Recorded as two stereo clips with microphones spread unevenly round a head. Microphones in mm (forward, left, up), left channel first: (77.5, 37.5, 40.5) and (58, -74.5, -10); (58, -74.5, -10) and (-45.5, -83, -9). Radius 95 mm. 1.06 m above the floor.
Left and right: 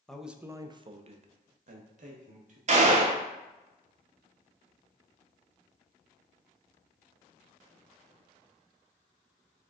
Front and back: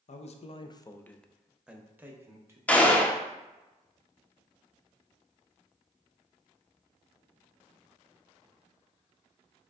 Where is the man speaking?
10° right, 0.6 m; by 2.6 s 110° right, 1.3 m.